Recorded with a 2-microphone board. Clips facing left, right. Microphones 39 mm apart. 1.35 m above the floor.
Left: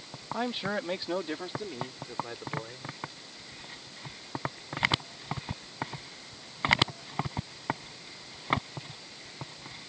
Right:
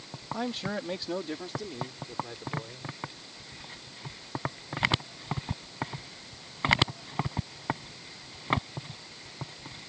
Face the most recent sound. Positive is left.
turn(degrees=30)  # may be behind; listen again after turning